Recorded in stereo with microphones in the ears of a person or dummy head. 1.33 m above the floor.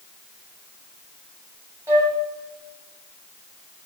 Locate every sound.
1.9 s a flute: 15° right (ahead or behind), 4 m